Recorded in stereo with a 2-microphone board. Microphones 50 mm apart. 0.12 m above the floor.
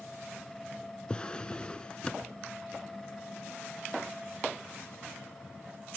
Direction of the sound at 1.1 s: 15° left (ahead or behind).